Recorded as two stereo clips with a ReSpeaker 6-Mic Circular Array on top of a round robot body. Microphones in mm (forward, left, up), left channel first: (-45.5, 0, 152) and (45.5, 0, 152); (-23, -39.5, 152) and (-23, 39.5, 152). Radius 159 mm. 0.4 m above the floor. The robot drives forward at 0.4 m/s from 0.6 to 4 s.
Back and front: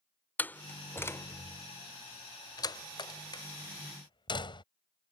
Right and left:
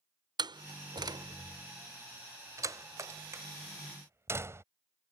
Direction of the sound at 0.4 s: 110° left.